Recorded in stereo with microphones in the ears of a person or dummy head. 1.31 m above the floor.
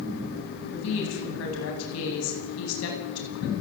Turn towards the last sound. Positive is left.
turn(degrees=80)